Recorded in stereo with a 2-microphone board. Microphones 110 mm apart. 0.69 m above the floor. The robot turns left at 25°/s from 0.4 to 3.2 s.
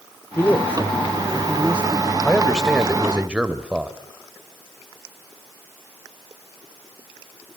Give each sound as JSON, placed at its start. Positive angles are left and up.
{"t": 0.4, "sound": "a man speaking", "azimuth_deg": 20, "distance_m": 1.9}
{"t": 2.2, "sound": "a man speaking", "side_deg": 15, "distance_m": 2.5}